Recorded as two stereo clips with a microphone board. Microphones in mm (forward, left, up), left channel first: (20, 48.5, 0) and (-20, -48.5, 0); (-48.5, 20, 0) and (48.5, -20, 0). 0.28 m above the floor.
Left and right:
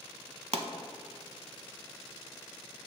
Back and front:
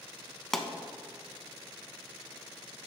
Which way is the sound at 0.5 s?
115° right.